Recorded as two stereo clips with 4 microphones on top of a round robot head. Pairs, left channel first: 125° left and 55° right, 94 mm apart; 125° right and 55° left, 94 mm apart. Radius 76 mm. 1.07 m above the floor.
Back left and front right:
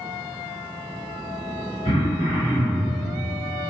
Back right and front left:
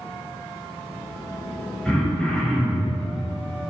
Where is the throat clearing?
150° left, 2.5 m.